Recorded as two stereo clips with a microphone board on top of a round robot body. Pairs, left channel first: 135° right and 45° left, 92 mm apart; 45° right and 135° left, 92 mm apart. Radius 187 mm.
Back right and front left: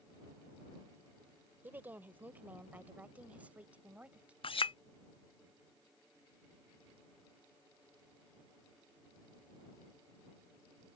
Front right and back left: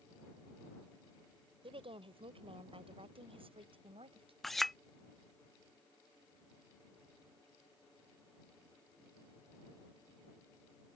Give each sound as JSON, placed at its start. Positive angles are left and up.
{"t": 1.6, "sound": "a woman speaking", "azimuth_deg": 115}
{"t": 4.4, "sound": "a clink", "azimuth_deg": -135}